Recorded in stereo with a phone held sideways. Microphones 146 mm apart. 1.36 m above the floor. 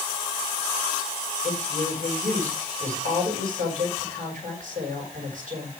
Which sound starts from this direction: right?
A woman speaking, at 1.4 s.